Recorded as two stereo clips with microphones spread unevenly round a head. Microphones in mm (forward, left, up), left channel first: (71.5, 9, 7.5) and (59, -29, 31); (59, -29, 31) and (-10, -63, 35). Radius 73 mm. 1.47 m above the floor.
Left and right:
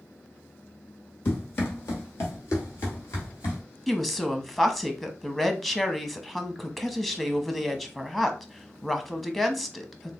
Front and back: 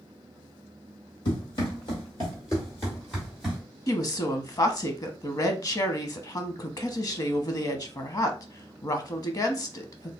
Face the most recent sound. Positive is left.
turn(degrees=-15)